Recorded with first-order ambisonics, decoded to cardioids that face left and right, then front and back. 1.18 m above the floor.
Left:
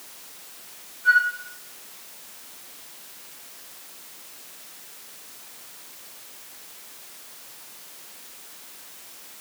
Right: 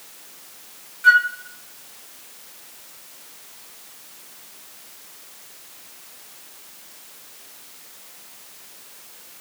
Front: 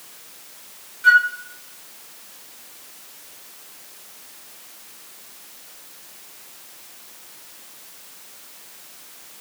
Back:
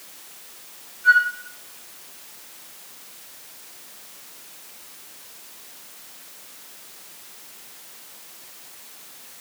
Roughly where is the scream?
No scream in this recording.